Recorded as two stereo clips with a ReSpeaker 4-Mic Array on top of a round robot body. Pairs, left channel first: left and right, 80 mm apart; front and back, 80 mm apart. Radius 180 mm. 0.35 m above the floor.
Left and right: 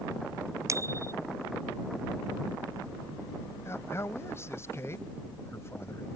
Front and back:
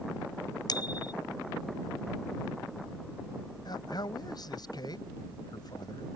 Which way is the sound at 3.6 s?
30° left.